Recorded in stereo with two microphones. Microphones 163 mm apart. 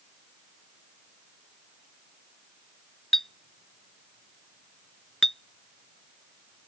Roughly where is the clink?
Centre.